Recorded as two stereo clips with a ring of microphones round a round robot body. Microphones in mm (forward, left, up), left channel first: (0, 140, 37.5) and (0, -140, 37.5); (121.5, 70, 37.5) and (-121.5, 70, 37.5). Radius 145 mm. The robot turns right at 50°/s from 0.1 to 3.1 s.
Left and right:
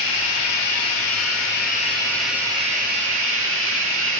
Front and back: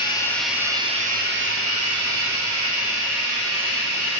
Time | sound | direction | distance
0.0 | running water | 75° left | 1.8 m